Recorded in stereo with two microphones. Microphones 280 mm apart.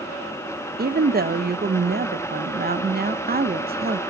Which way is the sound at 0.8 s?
30° right (ahead or behind).